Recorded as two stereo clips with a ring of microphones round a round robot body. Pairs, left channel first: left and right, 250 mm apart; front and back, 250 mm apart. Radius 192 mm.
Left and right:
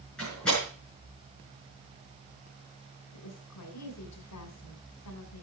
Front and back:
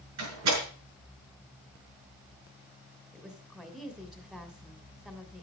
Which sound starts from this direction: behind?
A door slam, at 0.2 s.